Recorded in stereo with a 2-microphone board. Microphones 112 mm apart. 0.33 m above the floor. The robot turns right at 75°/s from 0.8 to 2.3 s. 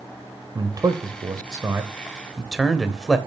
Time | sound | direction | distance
0.6 | a man speaking | 35° right (ahead or behind) | 1.0 m